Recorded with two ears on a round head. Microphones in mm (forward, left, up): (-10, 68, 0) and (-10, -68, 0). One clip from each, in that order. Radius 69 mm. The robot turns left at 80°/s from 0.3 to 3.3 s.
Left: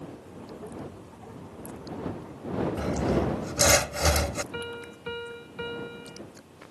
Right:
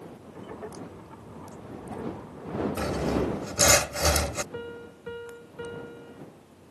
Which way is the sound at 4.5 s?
55° left (ahead or behind).